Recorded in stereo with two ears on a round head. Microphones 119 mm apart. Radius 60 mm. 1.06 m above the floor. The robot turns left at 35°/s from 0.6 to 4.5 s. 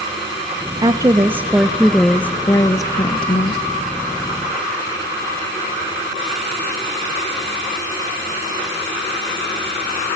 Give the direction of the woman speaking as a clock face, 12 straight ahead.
5 o'clock.